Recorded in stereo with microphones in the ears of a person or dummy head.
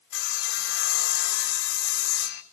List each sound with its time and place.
0.1 s sawing: 60° left (ahead or behind), 0.9 m